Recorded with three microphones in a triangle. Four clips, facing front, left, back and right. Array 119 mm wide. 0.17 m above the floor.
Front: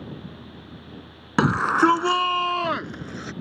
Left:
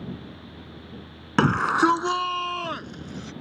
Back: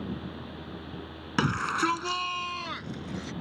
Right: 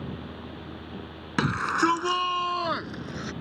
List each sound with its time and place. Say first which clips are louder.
1.4 s a shout: left 5 dB, front 9 dB; 50° left; by 3.3 s 25° right